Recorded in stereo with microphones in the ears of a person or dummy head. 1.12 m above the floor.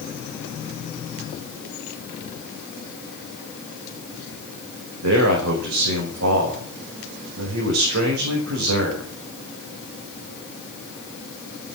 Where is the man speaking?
75° right (ahead or behind), 5 m.